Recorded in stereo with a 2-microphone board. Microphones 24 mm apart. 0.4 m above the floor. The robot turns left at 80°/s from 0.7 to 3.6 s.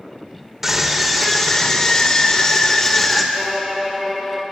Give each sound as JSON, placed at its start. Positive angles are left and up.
{"t": 0.6, "sound": "a scream", "azimuth_deg": -150, "distance_m": 1.2}
{"t": 3.3, "sound": "a violin", "side_deg": 10, "distance_m": 2.0}